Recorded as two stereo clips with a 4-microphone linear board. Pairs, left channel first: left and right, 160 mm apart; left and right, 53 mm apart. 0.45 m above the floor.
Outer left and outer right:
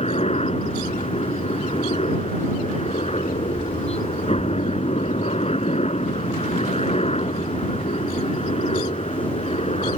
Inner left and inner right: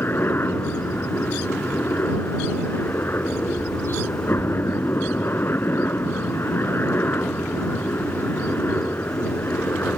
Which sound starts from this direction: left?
A helicopter, at 0.0 s.